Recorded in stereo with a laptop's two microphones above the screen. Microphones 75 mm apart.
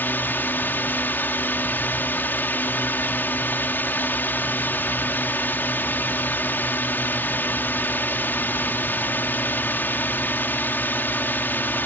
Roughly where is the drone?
Left.